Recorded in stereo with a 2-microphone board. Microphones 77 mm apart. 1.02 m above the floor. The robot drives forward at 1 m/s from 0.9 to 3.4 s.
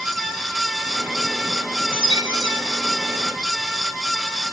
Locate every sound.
1.9 s a chime: 80° right, 3 m; by 3.1 s 60° right (ahead or behind), 3.5 m